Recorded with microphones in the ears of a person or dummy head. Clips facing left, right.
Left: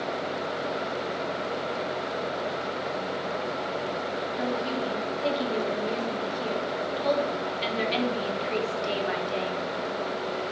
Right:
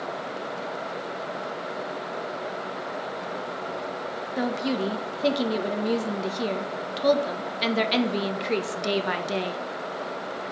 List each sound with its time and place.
4.4 s a woman speaking: 65° right (ahead or behind), 1.2 m